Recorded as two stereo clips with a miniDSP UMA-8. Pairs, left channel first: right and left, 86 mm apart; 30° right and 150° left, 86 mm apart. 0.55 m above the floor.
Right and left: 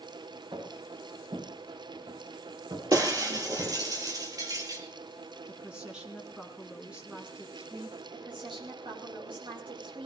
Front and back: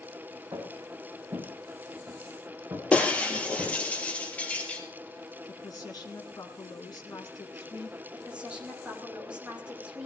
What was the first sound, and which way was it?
Footsteps, 105° left.